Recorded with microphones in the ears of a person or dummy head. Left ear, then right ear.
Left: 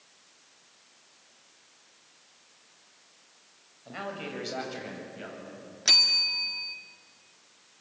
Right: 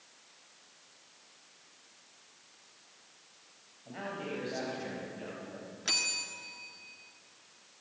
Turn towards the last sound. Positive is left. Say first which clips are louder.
# left 12 dB
turn(degrees=30)  # may be behind; listen again after turning